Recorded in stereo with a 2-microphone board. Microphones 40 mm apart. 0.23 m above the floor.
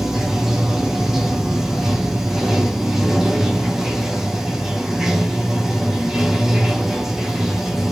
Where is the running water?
10° right (ahead or behind), 0.8 m.